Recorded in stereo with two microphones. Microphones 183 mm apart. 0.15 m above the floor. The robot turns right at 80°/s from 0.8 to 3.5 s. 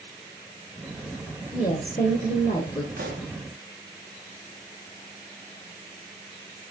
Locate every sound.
1.5 s a woman speaking: 40° left, 1.6 m; by 2.9 s 145° left, 1.6 m
3.0 s a pop: 55° right (ahead or behind), 0.9 m; by 3.3 s 60° right (ahead or behind), 0.9 m